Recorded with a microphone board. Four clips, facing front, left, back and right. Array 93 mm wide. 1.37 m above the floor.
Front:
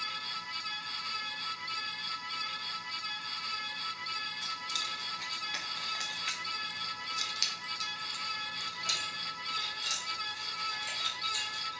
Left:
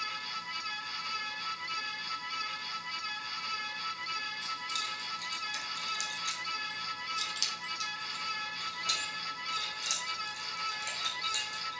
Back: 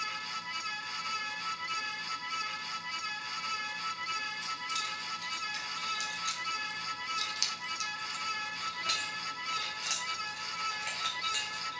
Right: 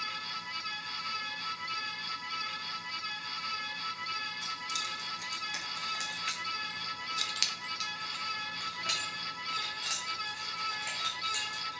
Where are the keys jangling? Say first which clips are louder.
Even, back 2 dB; 15° right, 2.0 m; by 11.8 s 150° right, 3.5 m.